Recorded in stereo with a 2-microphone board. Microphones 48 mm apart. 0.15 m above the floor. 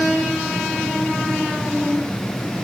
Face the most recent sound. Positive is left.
No sound to turn to.